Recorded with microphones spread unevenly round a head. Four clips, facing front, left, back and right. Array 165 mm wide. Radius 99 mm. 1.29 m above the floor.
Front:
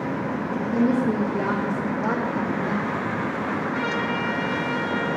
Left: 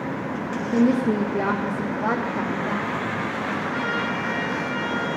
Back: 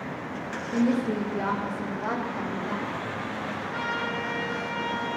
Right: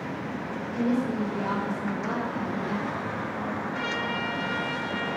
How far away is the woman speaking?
About 1.0 m.